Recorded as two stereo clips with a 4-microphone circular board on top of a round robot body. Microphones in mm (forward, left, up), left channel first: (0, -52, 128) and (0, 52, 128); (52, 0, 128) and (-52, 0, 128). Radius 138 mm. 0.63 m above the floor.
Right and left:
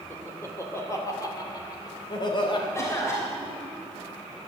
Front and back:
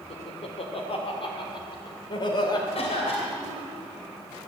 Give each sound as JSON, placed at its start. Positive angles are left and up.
{"t": 0.1, "sound": "laughter", "azimuth_deg": -20, "distance_m": 2.5}
{"t": 2.8, "sound": "a cough", "azimuth_deg": -25, "distance_m": 3.0}